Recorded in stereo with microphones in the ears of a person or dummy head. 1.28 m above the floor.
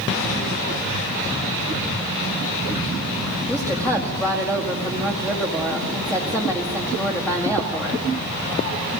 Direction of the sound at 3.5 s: 10° left (ahead or behind).